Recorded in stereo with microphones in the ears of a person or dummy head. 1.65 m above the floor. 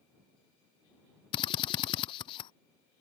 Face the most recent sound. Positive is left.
turn(degrees=25)  # may be behind; listen again after turning